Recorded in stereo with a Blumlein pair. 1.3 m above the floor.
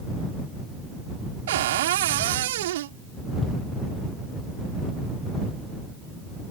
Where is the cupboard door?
55° right.